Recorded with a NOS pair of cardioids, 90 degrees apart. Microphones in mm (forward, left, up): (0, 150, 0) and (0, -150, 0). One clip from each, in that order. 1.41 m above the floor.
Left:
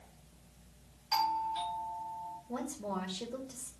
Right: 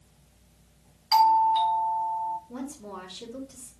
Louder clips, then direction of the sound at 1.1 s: Right 12 dB; 40° right.